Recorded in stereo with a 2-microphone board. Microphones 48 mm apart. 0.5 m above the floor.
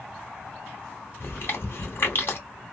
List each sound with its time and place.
1.2 s chewing: 45° left (ahead or behind), 1.8 m